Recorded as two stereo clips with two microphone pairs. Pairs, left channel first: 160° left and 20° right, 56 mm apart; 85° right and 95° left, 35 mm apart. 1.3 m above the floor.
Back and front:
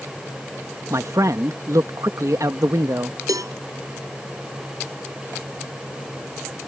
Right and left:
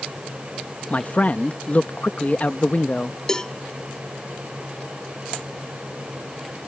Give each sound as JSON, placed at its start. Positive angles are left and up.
{"t": 0.9, "sound": "a man speaking", "azimuth_deg": -40}
{"t": 3.3, "sound": "a cowbell", "azimuth_deg": -15}